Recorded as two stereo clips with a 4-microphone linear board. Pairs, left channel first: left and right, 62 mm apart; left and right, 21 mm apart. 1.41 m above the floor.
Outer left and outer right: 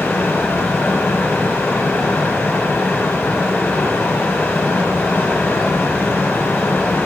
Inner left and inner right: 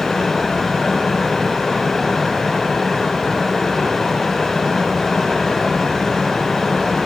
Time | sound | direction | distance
0.0 | running water | 30° left (ahead or behind) | 3 m